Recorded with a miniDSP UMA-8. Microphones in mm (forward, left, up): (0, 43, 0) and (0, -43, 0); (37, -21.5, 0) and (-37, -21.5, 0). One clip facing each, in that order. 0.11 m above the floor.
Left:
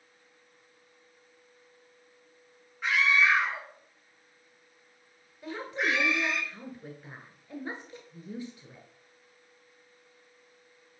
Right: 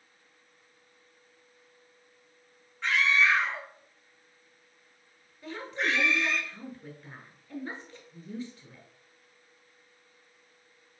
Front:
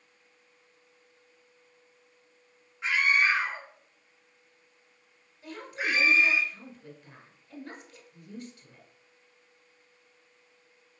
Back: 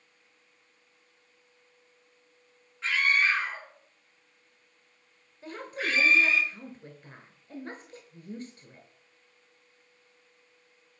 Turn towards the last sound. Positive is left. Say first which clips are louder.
# left 1 dB, even
turn(degrees=155)